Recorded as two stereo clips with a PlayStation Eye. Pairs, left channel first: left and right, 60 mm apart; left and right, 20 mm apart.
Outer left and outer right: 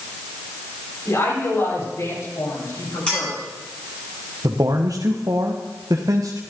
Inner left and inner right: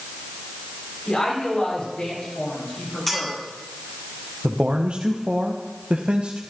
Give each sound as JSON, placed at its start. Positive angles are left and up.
{"t": 1.1, "sound": "a woman speaking", "side_deg": 50, "distance_m": 8.0}
{"t": 3.1, "sound": "a clink", "side_deg": 15, "distance_m": 9.0}
{"t": 4.4, "sound": "a man speaking", "side_deg": -75, "distance_m": 1.2}